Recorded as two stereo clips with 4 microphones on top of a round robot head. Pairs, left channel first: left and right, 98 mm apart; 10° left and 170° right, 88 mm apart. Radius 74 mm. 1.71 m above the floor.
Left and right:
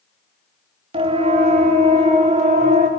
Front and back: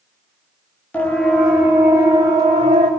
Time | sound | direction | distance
0.9 | a siren | 65° right | 3.5 m